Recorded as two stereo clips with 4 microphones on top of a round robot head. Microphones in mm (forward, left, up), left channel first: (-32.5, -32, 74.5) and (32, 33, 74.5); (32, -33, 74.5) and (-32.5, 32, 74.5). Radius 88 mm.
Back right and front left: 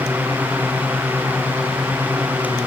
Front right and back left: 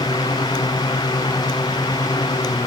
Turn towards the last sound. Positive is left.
No sound to turn to.